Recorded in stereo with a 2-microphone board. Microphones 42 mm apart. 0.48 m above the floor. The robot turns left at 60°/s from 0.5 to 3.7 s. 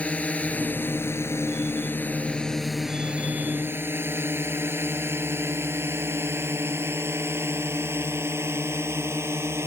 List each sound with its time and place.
0.0 s a drone: 30° left (ahead or behind); by 9.7 s 85° right